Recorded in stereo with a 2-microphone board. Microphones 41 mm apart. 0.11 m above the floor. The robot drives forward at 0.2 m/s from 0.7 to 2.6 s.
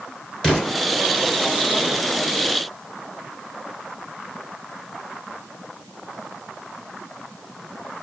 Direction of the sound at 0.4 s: 15° left (ahead or behind).